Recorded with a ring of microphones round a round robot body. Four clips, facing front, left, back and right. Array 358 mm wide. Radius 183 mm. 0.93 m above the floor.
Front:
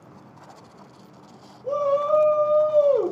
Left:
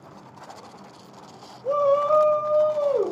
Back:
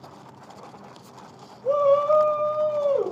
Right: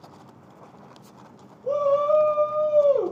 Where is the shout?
155° left, 0.9 m; by 3.1 s straight ahead, 1.0 m.